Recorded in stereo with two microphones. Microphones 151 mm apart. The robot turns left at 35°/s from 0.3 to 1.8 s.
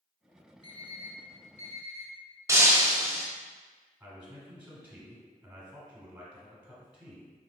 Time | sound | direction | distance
0.6 | an alarm clock | 40° left (ahead or behind) | 1.7 m
2.5 | breaking glass | 20° right (ahead or behind) | 0.7 m
4.0 | a man speaking | 10° right (ahead or behind) | 1.3 m